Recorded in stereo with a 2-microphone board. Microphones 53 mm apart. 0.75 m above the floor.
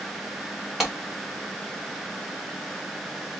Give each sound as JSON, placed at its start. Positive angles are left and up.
{"t": 0.8, "sound": "a clap", "side_deg": -5, "distance_m": 1.4}